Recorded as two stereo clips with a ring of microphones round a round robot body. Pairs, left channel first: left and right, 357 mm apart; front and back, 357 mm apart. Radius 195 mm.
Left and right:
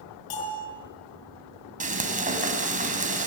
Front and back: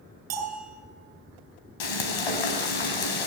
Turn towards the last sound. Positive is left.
turn(degrees=-20)